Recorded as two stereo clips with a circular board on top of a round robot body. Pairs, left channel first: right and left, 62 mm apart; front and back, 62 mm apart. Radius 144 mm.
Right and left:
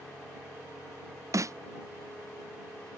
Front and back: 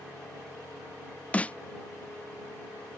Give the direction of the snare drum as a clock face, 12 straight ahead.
10 o'clock.